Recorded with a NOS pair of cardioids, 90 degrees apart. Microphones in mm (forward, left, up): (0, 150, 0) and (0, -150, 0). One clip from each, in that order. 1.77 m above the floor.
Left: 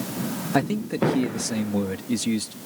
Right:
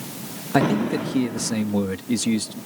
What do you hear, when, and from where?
0.5 s a man speaking: 15° right